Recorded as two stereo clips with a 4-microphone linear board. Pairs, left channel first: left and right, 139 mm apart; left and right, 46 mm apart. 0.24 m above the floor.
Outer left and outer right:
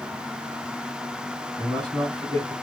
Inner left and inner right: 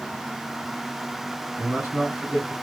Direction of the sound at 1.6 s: 35° right (ahead or behind).